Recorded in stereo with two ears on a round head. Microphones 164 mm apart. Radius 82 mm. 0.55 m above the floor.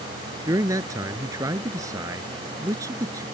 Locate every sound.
0.5 s a man speaking: 15° right (ahead or behind)